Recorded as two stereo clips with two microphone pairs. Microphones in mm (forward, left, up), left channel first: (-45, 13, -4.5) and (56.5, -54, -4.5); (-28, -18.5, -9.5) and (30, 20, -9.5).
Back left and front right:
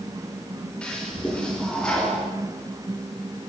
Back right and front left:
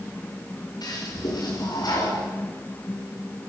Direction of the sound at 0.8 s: 130° right.